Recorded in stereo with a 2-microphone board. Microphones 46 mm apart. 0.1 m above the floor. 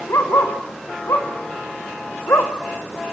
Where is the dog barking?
85° left, 5.5 m; by 2.5 s 65° left (ahead or behind), 3.5 m.